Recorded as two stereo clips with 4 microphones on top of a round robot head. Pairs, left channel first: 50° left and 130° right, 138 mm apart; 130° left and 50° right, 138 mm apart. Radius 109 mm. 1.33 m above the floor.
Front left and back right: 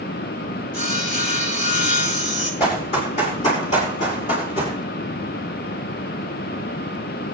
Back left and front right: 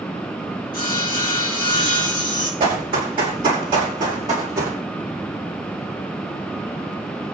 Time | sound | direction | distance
0.7 | sawing | 70° left | 6 m
2.6 | running footsteps | 5° left | 5 m